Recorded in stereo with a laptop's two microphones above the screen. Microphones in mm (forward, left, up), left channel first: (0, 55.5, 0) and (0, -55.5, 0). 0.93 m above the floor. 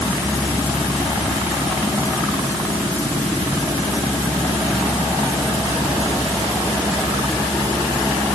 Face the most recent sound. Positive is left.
No sound to turn to.